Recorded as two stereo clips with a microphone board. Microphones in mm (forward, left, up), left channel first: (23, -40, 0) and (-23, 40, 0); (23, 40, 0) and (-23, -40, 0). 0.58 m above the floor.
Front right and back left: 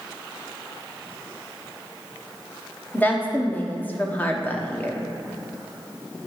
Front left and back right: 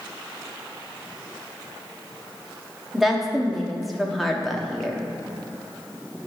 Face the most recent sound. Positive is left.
turn(degrees=-30)